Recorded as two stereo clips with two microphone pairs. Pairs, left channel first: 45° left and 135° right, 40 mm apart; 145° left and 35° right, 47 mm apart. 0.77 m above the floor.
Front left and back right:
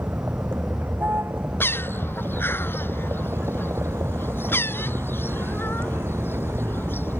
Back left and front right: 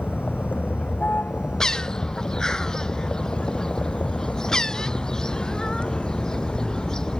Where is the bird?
70° left.